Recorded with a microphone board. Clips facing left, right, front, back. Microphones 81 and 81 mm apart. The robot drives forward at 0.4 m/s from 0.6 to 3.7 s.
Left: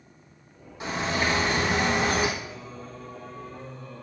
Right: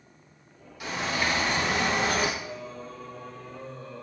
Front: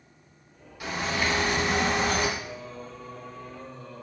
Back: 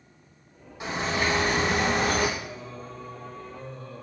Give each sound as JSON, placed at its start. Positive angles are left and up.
{"t": 0.8, "sound": "a bird", "azimuth_deg": 130, "distance_m": 1.2}
{"t": 2.4, "sound": "singing", "azimuth_deg": -170, "distance_m": 1.2}